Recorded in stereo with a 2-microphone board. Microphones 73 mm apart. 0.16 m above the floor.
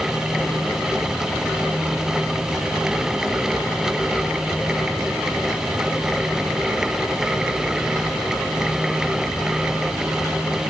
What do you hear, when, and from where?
Only background noise.